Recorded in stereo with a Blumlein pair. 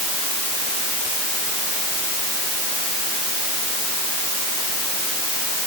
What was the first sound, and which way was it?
Only background noise.